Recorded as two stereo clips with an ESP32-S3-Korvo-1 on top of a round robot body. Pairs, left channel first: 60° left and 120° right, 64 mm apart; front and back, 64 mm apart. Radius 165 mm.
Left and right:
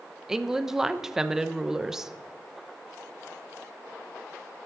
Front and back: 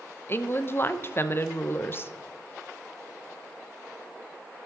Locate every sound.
0.3 s a woman speaking: 40° right, 1.0 m